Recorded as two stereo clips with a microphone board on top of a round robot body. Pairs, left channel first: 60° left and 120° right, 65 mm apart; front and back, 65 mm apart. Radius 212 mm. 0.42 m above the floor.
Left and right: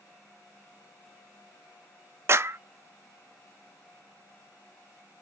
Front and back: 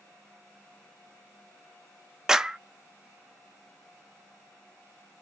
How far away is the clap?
About 0.6 m.